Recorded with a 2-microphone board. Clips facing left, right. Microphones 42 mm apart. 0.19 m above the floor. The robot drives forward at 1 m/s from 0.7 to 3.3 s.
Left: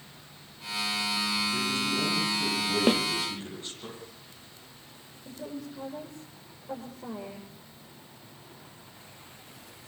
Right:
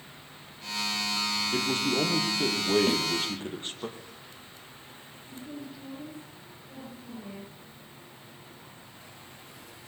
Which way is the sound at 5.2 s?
80° left.